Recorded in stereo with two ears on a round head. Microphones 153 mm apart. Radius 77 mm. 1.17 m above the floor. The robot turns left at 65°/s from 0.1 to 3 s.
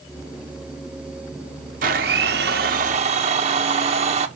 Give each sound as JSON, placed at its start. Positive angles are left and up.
{"t": 1.8, "sound": "a blender", "azimuth_deg": -55, "distance_m": 1.2}